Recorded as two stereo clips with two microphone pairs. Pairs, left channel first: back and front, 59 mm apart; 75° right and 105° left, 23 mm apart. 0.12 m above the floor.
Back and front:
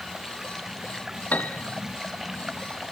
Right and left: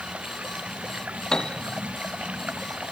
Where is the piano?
125° right.